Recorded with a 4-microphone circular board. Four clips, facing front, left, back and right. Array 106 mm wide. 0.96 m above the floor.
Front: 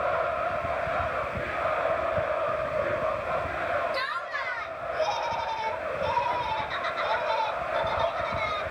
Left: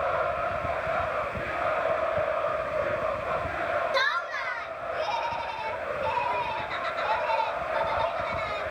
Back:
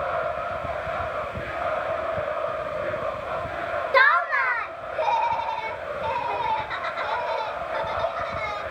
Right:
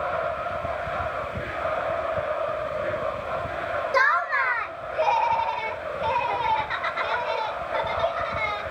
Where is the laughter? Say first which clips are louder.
Right 6 dB, back 12 dB; 160° right, 0.5 m; by 8.6 s 120° right, 4.5 m.